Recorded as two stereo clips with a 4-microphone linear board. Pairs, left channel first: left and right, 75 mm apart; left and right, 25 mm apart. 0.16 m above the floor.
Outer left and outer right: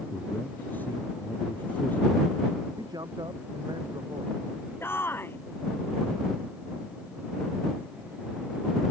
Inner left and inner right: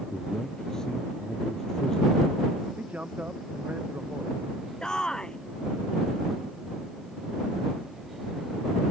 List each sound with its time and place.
0.1 s a man speaking: 25° left (ahead or behind)
2.8 s a man speaking: 70° right (ahead or behind)
4.8 s a shout: 30° left (ahead or behind)